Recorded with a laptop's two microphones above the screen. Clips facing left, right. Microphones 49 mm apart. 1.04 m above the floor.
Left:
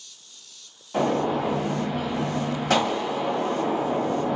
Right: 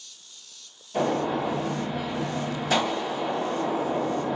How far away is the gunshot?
About 1.6 m.